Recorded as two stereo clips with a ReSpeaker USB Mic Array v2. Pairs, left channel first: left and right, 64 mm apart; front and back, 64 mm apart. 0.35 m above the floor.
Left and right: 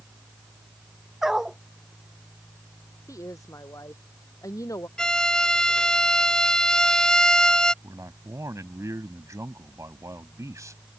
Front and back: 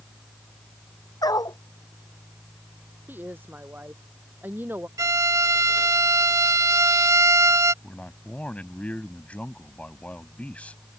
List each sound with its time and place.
1.2 s a dog barking: 10° right
3.1 s a woman speaking: 120° left
5.0 s a violin: 165° left
7.8 s a man speaking: 65° right